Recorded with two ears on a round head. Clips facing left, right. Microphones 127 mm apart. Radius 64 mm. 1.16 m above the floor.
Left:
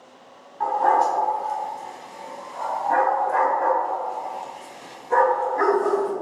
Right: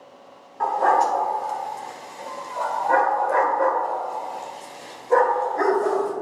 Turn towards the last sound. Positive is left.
turn(degrees=-20)  # may be behind; listen again after turning